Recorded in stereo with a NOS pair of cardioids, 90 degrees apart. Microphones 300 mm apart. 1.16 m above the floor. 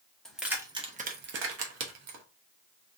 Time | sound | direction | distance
0.2 | keys jangling | straight ahead | 0.9 m